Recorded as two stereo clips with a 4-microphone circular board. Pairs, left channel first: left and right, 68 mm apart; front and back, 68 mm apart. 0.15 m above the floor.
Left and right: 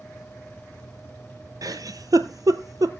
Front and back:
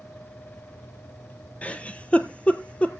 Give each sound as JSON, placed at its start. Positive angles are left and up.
{"t": 1.6, "sound": "a giggle", "azimuth_deg": -70, "distance_m": 0.7}